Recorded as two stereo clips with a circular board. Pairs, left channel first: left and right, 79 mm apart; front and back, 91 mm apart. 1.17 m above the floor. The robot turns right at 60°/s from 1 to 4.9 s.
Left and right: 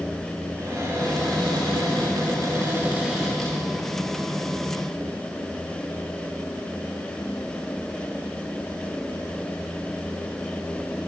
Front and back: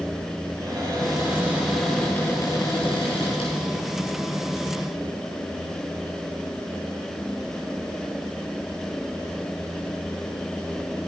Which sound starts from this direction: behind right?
A cupboard door, at 0.6 s.